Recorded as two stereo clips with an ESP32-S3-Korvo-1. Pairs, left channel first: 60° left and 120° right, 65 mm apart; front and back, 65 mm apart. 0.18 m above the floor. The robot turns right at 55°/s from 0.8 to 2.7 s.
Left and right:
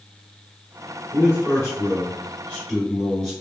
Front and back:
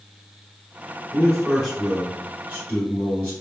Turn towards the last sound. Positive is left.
turn(degrees=140)